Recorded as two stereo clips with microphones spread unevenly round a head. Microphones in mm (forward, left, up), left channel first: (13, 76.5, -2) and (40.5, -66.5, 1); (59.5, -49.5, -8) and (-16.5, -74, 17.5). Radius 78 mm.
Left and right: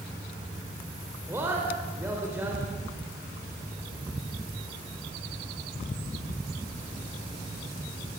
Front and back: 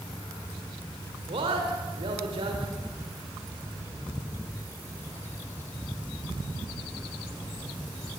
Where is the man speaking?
155° right, 3.5 m.